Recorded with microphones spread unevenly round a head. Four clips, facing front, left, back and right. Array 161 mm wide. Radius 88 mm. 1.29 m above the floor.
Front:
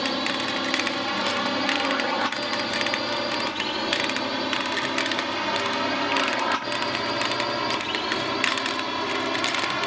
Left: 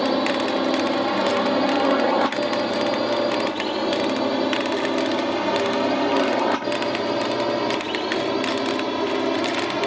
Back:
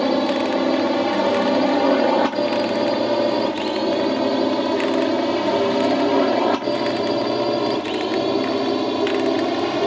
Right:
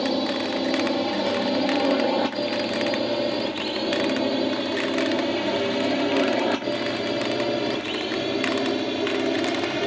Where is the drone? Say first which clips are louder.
Left 3 dB, back 9 dB; 150° left; by 9.9 s 165° left.